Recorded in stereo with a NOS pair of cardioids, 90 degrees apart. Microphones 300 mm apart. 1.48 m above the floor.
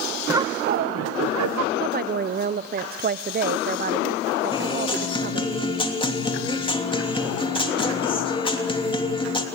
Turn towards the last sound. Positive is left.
turn(degrees=15)